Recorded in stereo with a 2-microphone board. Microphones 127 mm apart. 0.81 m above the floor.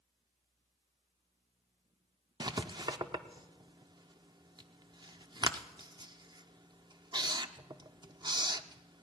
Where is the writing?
35° right (ahead or behind), 0.5 m.